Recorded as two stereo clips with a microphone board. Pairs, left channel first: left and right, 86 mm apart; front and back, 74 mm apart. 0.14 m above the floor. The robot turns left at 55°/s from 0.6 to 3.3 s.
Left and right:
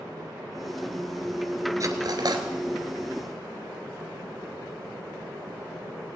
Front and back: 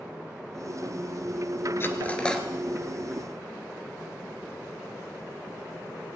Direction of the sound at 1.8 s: 50° right.